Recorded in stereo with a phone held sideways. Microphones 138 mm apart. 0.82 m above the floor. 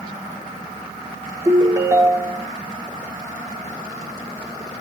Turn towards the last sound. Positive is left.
turn(degrees=-25)  # may be behind; listen again after turning